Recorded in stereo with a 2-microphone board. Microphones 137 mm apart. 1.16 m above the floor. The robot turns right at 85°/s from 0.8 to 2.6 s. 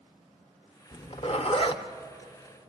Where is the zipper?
35° left (ahead or behind), 1.0 m; by 2.7 s 10° right (ahead or behind), 1.0 m.